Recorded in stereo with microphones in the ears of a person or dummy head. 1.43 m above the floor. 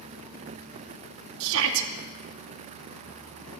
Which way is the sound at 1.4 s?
75° right (ahead or behind).